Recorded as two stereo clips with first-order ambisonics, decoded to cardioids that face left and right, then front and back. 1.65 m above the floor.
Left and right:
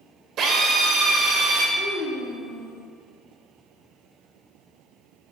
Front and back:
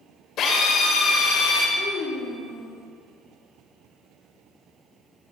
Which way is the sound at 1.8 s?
45° left.